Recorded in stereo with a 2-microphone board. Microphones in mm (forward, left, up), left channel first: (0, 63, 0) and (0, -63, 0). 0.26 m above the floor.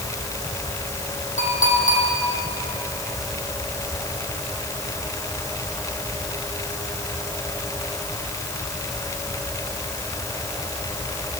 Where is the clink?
85° left, 8 m.